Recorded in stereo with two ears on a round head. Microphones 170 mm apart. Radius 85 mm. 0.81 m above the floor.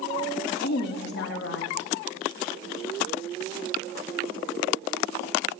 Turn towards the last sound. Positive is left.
turn(degrees=60)  # may be behind; listen again after turning